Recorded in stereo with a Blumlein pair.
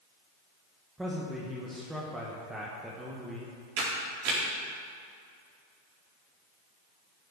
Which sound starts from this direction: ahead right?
A camera shutter, at 3.8 s.